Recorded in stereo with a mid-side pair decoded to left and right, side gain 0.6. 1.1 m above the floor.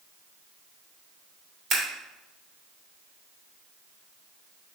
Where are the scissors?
50° right, 3 m.